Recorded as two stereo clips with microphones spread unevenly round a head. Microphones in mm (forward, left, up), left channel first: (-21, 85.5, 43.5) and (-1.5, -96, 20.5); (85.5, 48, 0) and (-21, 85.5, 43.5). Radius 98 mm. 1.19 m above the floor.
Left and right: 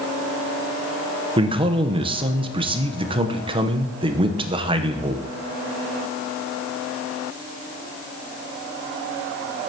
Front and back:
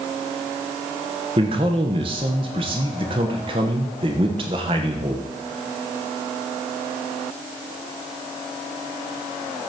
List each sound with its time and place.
1.4 s a man speaking: 135° right, 1.0 m